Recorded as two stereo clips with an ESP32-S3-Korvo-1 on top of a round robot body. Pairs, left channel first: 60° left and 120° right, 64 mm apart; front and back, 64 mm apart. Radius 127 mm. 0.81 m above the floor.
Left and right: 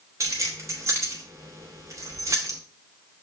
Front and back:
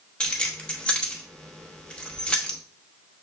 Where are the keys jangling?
75° right, 1.1 m.